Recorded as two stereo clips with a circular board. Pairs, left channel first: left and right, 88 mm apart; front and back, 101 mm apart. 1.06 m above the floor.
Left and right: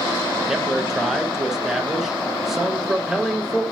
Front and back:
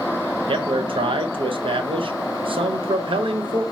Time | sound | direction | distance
0.5 | a man speaking | 175° right | 0.6 m